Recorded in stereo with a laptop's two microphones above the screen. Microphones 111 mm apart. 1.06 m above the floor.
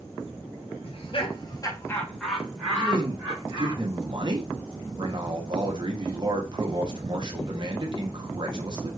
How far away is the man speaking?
About 0.8 m.